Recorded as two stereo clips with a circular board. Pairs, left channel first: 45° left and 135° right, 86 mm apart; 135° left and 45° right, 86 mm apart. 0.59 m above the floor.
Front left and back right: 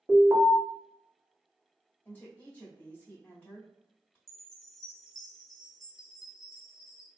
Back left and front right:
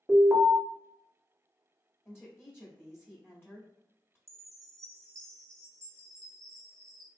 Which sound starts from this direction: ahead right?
A chime, at 4.3 s.